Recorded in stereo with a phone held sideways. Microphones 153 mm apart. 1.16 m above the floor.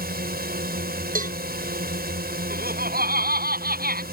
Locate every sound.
0.0 s a drone: 75° right (ahead or behind)
1.1 s a cowbell: 55° right (ahead or behind)
2.5 s laughter: 70° right (ahead or behind)